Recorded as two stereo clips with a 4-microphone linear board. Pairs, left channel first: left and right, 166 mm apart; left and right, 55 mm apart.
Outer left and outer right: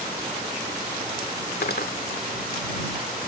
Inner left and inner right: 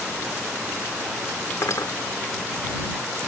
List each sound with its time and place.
1.6 s cutlery clinking: 75° left (ahead or behind)